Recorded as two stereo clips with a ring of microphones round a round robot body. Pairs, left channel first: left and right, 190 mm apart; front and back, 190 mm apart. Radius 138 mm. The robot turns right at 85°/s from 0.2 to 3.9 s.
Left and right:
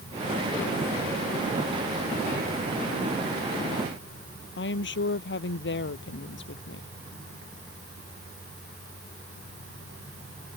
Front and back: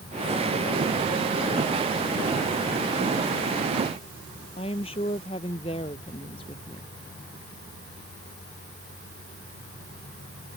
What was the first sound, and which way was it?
A woman speaking, 70° left.